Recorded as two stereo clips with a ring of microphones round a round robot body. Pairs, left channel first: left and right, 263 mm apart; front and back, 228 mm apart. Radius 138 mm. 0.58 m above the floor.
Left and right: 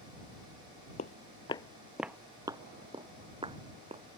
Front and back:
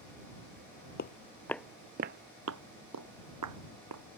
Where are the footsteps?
35° left; by 4.0 s 160° right.